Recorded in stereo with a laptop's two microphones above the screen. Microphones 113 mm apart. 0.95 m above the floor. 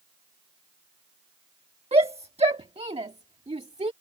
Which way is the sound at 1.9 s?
60° right (ahead or behind).